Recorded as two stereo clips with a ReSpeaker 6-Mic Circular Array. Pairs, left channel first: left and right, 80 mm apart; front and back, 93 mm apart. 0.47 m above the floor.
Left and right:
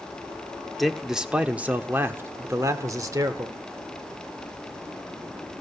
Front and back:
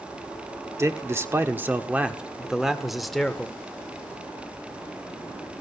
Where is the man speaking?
Straight behind, 1.2 m; by 3.6 s 85° right, 1.7 m.